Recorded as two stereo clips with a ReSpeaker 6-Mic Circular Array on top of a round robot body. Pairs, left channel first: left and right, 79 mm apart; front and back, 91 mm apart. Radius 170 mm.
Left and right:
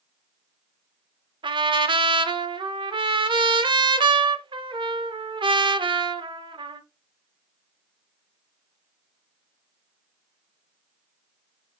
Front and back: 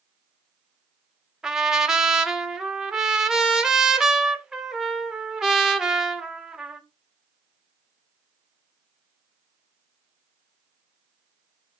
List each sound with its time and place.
1.4 s a trumpet: 95° right, 0.8 m